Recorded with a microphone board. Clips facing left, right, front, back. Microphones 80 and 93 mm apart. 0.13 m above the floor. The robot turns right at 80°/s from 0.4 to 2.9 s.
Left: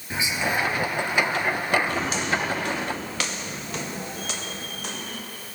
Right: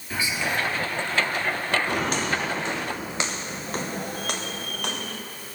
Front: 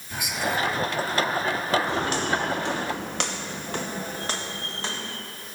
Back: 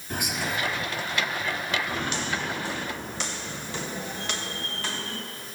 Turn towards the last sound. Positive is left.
turn(degrees=-70)